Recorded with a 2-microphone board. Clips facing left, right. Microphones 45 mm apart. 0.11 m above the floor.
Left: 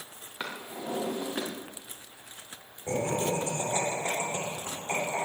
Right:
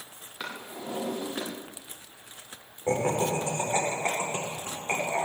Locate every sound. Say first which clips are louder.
0.4 s a drawer: left 1 dB; 15° left (ahead or behind), 5 m
2.9 s laughter: right 3 dB; 40° right (ahead or behind), 7.5 m